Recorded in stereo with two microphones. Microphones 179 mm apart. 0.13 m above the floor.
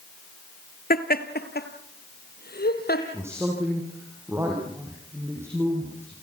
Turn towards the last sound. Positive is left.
turn(degrees=-15)  # may be behind; listen again after turning